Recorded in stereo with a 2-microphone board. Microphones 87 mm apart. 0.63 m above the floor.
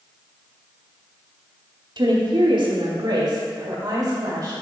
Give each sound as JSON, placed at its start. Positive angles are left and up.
{"t": 2.0, "sound": "a woman speaking", "side_deg": -60, "distance_m": 1.1}